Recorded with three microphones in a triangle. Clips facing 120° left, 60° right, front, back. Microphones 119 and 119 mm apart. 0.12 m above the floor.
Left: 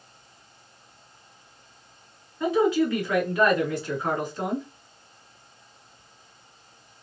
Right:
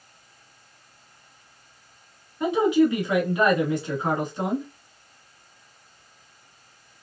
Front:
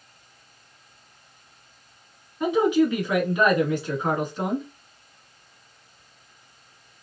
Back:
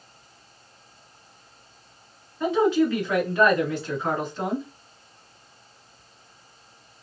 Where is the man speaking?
45° right, 1.4 m.